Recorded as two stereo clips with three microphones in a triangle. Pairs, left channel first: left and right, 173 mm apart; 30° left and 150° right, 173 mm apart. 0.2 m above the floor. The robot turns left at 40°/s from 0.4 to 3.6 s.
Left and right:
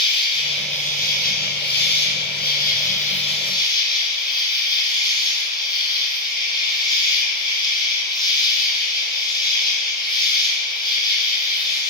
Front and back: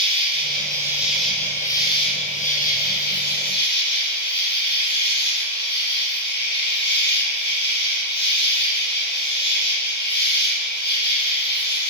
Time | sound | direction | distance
0.0 | an insect | 150° left | 1.0 m